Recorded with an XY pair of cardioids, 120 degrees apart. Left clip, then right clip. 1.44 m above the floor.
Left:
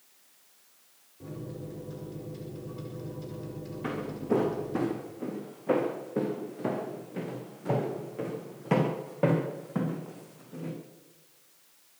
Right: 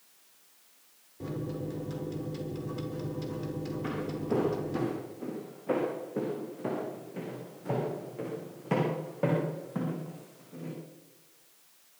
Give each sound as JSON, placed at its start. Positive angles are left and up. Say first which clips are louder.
{"t": 1.2, "sound": "a microwave", "louder": "right 5 dB", "azimuth_deg": -45, "distance_m": 5.0}
{"t": 3.8, "sound": "footsteps", "louder": "left 4 dB", "azimuth_deg": 20, "distance_m": 6.0}